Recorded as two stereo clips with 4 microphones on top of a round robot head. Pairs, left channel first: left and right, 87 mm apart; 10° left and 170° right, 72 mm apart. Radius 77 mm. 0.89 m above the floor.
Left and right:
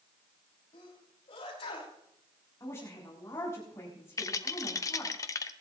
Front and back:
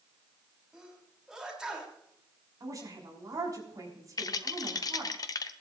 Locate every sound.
0.7 s a sneeze: 110° left, 5.5 m
2.6 s a woman speaking: 155° left, 6 m
4.2 s a rattle: 40° left, 0.6 m